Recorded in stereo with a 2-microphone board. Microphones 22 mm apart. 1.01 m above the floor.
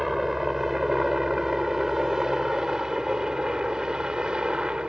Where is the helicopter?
5° right (ahead or behind); by 4.9 s 35° right (ahead or behind).